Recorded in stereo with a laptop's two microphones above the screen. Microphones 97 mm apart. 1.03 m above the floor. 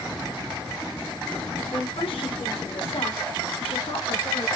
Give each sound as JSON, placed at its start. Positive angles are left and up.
{"t": 1.7, "sound": "a woman speaking", "side_deg": 70, "distance_m": 3.0}